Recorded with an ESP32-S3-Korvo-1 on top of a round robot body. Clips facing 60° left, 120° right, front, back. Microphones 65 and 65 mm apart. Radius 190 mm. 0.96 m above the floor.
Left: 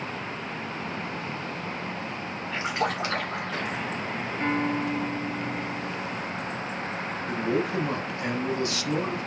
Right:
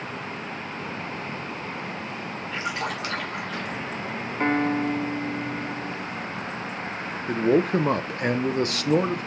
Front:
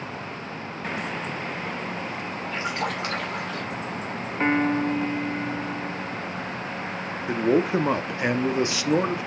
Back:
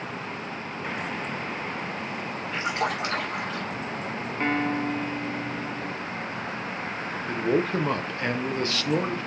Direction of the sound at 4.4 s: 70° right.